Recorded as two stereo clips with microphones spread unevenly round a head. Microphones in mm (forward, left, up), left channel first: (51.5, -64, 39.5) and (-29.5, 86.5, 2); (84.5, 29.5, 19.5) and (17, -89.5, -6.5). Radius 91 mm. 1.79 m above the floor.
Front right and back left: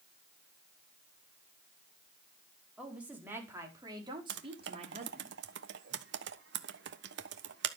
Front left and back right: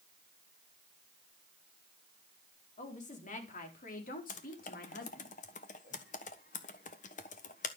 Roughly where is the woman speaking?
Ahead left.